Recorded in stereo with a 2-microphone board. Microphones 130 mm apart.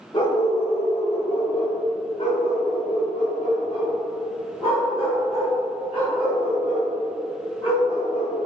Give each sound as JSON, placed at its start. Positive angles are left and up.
{"t": 0.1, "sound": "a dog barking", "side_deg": 40, "distance_m": 1.2}